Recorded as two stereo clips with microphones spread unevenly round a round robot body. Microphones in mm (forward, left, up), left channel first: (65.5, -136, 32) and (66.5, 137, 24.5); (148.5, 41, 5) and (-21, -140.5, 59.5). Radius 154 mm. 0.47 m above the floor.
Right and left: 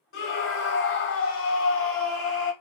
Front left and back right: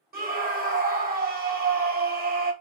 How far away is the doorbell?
No doorbell in this recording.